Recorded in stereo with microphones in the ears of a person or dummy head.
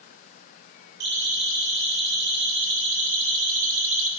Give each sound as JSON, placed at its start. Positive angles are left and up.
{"t": 1.0, "sound": "a siren", "side_deg": -55, "distance_m": 3.5}